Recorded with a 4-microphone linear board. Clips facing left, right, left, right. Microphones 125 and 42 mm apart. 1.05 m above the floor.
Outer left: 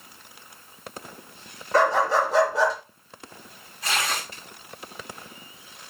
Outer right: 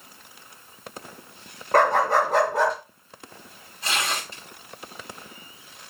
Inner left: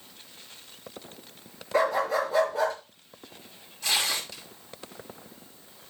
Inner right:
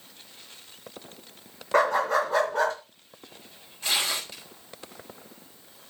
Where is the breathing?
I don't hear breathing.